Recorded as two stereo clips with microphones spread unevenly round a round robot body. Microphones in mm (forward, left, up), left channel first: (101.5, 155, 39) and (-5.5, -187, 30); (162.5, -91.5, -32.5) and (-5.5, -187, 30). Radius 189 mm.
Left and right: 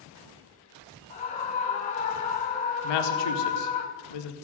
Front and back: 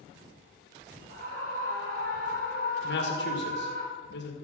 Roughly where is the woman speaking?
Left.